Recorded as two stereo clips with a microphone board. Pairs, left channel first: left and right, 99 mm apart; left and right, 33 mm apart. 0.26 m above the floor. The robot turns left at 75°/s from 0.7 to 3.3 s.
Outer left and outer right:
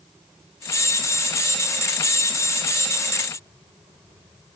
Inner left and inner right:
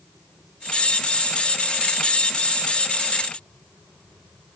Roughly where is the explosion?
I don't hear an explosion.